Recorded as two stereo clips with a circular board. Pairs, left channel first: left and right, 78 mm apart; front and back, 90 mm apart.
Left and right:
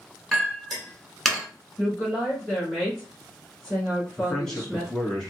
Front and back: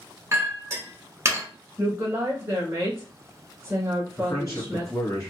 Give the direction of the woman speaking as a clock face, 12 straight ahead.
6 o'clock.